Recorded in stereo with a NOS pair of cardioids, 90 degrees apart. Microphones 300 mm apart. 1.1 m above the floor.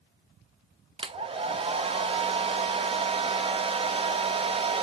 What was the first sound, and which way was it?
A hair dryer, 20° right.